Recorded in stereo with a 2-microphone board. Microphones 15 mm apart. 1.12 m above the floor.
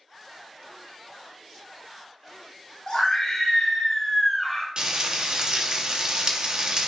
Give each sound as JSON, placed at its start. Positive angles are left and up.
{"t": 2.9, "sound": "a scream", "side_deg": 50, "distance_m": 2.0}
{"t": 4.8, "sound": "frying", "side_deg": -50, "distance_m": 0.6}